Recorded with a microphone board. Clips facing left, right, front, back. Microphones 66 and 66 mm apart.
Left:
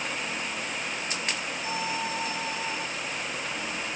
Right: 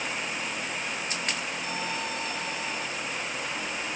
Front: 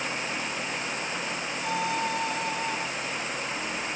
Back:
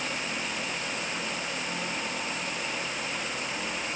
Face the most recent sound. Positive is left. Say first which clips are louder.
# left 2 dB, front 5 dB
turn(degrees=15)